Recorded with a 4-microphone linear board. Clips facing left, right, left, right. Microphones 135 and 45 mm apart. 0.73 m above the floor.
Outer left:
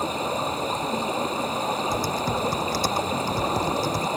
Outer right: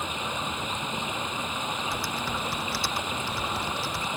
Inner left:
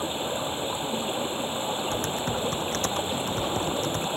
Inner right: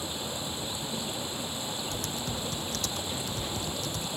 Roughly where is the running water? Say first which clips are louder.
Outer left 7 dB, inner left 7 dB; left.